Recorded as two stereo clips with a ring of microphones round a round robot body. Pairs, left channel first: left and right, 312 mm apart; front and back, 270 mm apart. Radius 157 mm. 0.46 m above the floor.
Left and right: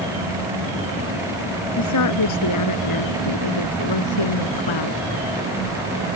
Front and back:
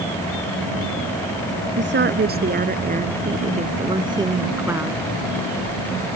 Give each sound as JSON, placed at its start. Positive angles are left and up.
{"t": 1.8, "sound": "a woman speaking", "azimuth_deg": 130}